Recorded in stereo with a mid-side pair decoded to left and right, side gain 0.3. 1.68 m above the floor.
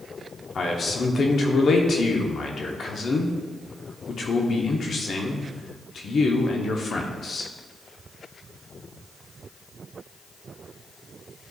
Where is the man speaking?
70° left, 0.9 m.